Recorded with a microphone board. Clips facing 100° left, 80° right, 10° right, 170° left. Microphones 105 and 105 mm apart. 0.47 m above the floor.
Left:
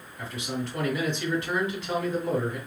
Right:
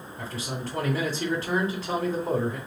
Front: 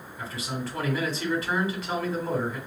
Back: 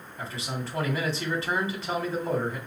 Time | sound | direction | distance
0.2 | a man speaking | 130° right | 2.5 m